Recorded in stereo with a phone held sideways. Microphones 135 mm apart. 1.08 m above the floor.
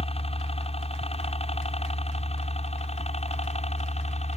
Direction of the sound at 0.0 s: 45° left (ahead or behind).